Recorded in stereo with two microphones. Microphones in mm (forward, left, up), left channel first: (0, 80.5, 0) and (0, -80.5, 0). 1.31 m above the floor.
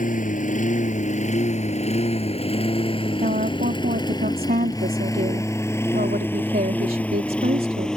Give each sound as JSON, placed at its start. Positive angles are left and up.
{"t": 0.0, "sound": "a lawn mower", "side_deg": 55}
{"t": 3.2, "sound": "a woman speaking", "side_deg": -65}